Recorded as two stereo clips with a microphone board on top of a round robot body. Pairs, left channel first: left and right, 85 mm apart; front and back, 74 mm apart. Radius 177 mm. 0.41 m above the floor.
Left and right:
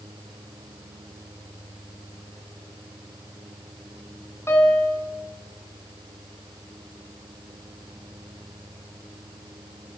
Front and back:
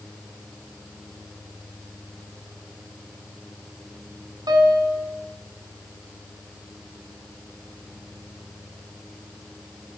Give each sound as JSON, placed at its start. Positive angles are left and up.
{"t": 4.5, "sound": "a piano", "azimuth_deg": 150, "distance_m": 3.0}